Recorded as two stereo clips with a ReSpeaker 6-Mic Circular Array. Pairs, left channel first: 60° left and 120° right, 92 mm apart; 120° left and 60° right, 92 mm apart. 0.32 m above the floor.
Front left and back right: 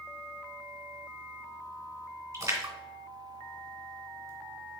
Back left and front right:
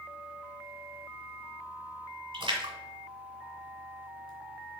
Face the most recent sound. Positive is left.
turn(degrees=-70)